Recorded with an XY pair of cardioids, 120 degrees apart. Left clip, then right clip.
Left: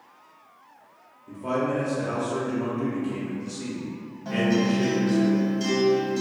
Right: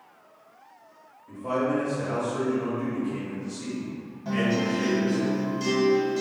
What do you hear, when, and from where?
1.3 s a man speaking: 55° left, 0.8 m
4.2 s a guitar: 10° left, 1.1 m